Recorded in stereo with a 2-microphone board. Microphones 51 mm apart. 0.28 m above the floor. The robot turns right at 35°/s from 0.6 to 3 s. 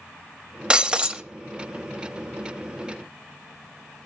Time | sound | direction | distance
0.7 | breaking glass | 20° right (ahead or behind) | 0.7 m